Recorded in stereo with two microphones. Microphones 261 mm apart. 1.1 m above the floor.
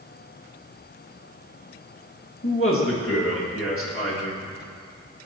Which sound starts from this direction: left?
A man speaking, at 2.4 s.